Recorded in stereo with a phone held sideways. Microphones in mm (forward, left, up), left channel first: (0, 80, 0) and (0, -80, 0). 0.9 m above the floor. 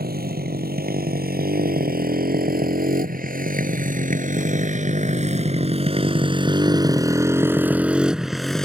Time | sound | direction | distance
0.0 | a motorcycle | 80° right | ?